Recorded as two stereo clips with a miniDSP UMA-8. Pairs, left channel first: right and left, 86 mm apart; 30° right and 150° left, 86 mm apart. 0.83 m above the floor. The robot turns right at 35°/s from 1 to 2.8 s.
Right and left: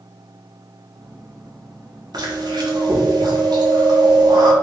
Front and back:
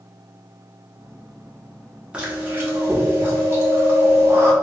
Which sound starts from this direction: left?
Chewing, at 2.1 s.